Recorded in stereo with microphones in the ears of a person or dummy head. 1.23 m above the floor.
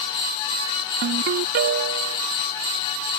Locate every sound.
1.0 s a ringtone: 45° right (ahead or behind)